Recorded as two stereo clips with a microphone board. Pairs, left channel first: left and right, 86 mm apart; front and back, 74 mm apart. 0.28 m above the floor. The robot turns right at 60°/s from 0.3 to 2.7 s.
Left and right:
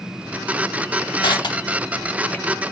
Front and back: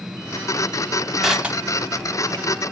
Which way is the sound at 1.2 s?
95° left.